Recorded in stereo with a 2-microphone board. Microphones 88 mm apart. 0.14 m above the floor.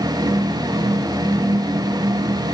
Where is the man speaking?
I don't hear a man speaking.